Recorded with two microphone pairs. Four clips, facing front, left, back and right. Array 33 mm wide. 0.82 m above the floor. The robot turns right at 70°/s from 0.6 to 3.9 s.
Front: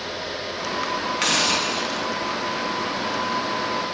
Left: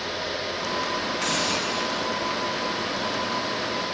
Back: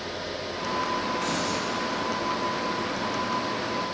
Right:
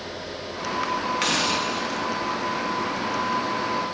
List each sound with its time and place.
1.2 s a hiss: 40° right, 1.2 m; by 2.1 s 25° left, 1.2 m